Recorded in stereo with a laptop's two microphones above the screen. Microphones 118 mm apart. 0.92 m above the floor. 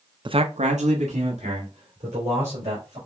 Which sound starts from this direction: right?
A man speaking, at 0.2 s.